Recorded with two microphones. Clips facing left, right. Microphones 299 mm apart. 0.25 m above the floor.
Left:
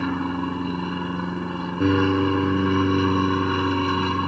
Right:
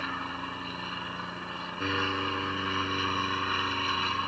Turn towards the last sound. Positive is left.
turn(degrees=60)  # may be behind; listen again after turning